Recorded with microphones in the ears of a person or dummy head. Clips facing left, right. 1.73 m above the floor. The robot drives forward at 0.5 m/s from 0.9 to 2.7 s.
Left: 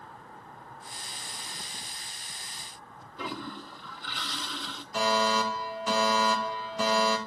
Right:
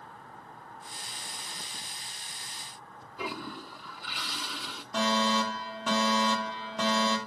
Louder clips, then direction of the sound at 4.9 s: Left 1 dB; 50° right (ahead or behind).